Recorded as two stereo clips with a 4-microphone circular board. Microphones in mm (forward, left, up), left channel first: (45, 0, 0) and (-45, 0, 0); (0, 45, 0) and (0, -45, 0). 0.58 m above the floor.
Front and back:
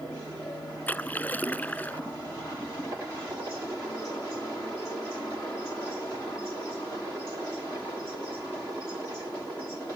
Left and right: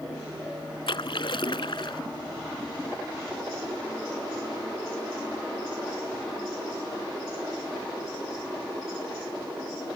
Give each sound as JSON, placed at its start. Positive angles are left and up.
{"t": 0.9, "sound": "a splash", "azimuth_deg": 70}